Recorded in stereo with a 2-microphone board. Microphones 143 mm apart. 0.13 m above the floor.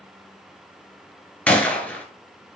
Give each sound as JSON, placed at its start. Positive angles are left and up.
{"t": 1.5, "sound": "a gunshot", "side_deg": 10, "distance_m": 0.9}